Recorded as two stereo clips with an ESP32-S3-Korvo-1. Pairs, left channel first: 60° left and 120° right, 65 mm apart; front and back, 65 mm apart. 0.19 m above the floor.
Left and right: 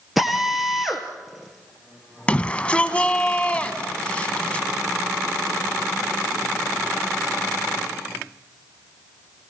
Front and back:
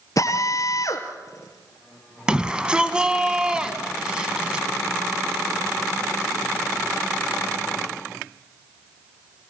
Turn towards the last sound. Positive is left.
turn(degrees=115)